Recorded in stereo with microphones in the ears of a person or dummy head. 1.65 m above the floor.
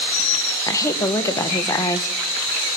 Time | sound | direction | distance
0.7 | a woman speaking | 20° left (ahead or behind) | 1.3 m